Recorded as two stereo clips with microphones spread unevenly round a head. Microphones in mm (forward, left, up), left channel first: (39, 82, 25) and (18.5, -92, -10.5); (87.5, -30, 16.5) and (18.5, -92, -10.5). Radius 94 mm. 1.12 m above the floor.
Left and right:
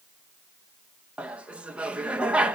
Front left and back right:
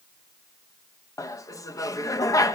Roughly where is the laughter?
Ahead.